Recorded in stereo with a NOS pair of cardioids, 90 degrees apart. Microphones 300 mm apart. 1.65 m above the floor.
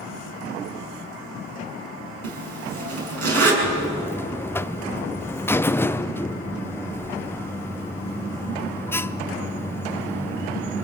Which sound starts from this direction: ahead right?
A zipper, at 2.2 s.